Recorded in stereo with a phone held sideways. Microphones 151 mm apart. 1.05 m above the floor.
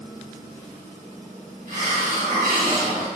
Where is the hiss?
65° right (ahead or behind), 1.7 m.